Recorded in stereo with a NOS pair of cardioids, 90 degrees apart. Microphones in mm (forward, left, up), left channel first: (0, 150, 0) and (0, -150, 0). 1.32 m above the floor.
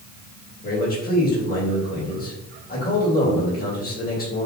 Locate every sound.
0.6 s a man speaking: 30° left, 2 m